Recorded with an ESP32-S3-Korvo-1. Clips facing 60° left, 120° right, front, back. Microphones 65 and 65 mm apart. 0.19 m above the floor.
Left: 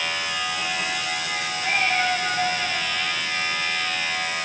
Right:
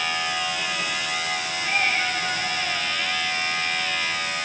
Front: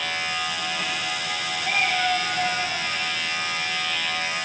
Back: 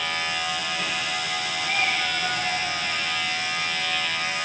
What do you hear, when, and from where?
1.6 s a cat meowing: 20° left, 7 m; by 2.9 s 30° left, 7 m